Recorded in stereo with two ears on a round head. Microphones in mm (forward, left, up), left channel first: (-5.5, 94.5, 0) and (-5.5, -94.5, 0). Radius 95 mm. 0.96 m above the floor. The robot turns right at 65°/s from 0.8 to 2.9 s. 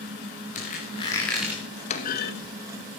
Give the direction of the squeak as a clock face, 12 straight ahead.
7 o'clock.